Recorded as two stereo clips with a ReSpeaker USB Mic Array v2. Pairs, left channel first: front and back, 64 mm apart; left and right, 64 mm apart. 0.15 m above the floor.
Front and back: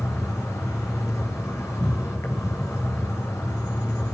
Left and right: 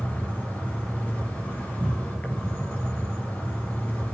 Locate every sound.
0.0 s an insect: 35° left, 4.5 m